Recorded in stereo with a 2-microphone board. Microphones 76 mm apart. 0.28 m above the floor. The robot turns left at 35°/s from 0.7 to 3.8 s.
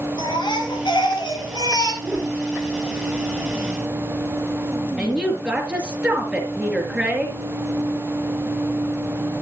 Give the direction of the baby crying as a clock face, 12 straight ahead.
9 o'clock.